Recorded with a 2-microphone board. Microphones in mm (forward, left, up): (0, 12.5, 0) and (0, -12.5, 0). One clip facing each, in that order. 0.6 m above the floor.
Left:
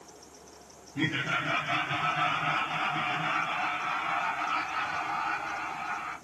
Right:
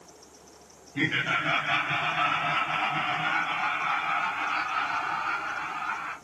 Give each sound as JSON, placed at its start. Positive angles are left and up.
{"t": 0.9, "sound": "laughter", "side_deg": -75, "distance_m": 3.0}